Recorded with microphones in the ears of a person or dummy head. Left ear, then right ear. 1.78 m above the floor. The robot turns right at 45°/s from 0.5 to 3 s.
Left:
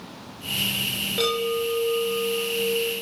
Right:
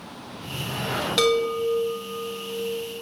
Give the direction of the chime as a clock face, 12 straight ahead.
3 o'clock.